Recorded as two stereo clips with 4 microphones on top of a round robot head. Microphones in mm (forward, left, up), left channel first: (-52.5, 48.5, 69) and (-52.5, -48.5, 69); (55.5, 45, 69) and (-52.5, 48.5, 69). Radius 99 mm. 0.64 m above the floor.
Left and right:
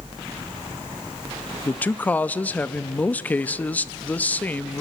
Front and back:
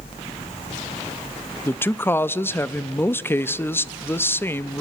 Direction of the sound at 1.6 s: 40° left.